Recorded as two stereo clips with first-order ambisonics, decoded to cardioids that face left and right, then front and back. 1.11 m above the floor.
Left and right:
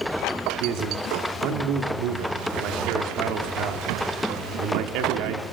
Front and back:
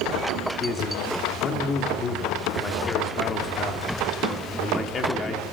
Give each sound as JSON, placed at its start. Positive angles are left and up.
{"t": 0.6, "sound": "a man speaking", "azimuth_deg": -65, "distance_m": 3.0}